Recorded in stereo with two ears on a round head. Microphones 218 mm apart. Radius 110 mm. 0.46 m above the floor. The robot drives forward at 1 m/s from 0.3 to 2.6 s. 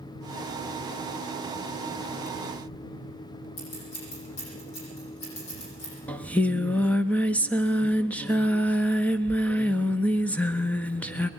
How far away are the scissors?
About 9.5 m.